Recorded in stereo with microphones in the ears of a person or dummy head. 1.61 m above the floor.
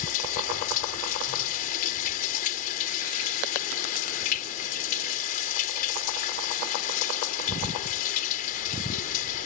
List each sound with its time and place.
0.0 s running water: 55° left (ahead or behind)